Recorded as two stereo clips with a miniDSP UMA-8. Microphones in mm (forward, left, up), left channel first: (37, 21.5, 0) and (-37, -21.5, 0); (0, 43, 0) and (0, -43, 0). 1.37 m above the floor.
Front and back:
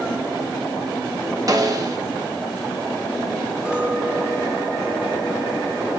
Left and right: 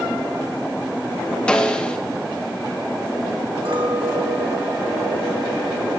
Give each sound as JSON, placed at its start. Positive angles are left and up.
{"t": 1.5, "sound": "a snare drum", "azimuth_deg": 170, "distance_m": 1.1}
{"t": 3.6, "sound": "a clink", "azimuth_deg": -75, "distance_m": 2.0}